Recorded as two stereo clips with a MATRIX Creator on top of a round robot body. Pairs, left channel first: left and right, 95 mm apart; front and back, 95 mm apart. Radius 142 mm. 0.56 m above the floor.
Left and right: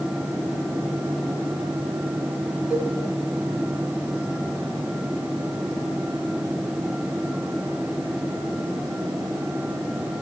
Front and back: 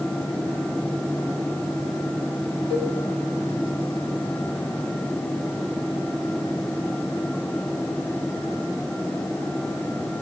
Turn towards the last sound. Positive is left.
turn(degrees=-5)